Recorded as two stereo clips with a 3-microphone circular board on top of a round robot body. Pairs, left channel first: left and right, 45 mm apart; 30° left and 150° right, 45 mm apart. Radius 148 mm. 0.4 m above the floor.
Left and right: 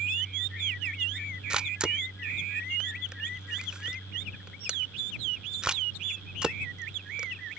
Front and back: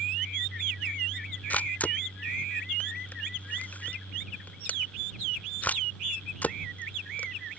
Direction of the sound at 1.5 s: 20° right.